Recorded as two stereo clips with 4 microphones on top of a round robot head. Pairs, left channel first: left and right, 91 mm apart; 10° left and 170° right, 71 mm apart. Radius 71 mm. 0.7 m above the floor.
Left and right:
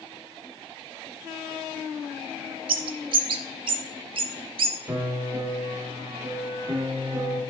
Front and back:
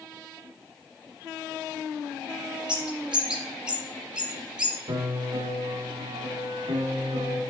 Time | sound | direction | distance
2.7 | a bird | 90° right | 0.6 m
4.9 | a piano | 155° right | 1.6 m